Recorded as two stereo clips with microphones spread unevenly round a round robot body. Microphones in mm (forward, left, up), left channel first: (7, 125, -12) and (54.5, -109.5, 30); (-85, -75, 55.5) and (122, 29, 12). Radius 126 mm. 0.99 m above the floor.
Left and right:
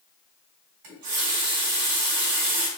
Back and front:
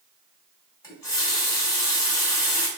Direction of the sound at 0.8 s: 75° right.